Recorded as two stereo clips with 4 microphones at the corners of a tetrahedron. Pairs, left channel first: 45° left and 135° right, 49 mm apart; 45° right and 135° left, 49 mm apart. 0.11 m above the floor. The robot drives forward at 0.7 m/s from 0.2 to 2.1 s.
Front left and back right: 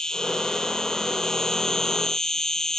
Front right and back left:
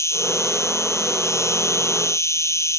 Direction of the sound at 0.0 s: 30° right.